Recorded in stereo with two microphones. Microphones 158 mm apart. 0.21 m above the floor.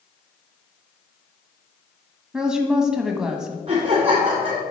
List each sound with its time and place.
2.3 s a woman speaking: 5° right (ahead or behind), 1.3 m
3.7 s laughter: 35° right (ahead or behind), 2.5 m